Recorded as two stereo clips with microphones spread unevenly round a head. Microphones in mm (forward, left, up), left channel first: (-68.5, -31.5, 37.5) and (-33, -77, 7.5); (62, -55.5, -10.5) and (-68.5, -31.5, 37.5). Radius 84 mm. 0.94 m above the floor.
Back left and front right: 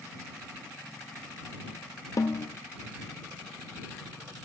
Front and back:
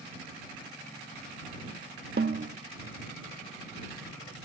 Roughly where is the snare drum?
Behind left.